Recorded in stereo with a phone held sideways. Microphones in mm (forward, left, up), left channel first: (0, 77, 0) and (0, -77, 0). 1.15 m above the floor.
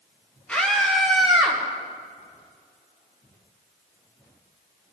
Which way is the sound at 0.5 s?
5° left (ahead or behind).